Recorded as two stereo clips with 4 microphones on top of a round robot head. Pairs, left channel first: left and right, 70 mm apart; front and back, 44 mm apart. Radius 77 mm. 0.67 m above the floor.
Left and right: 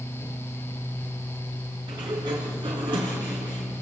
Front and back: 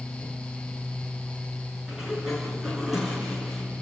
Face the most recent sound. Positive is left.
turn(degrees=-95)